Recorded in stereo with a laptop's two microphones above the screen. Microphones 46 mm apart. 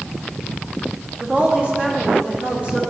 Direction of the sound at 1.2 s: 30° right (ahead or behind).